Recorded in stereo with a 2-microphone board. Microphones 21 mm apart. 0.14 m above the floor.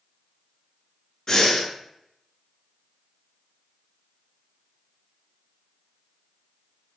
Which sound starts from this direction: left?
Breathing, at 1.3 s.